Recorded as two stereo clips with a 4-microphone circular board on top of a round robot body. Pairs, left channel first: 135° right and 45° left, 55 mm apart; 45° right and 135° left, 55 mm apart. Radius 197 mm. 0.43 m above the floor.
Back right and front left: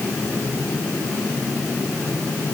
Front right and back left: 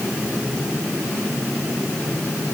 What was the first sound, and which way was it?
Only background noise.